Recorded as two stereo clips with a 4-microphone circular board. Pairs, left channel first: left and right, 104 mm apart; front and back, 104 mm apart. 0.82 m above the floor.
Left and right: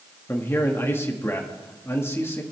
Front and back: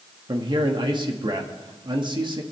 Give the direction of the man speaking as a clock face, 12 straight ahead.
7 o'clock.